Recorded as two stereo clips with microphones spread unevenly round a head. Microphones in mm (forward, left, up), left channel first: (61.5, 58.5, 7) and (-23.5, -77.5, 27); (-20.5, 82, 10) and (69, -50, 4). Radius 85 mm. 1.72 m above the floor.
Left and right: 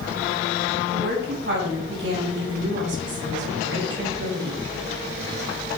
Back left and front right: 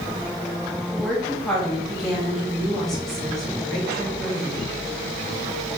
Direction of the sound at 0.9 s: 150° right.